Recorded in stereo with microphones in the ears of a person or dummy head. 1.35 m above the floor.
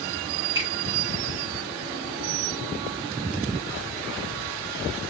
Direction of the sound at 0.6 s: 20° right (ahead or behind).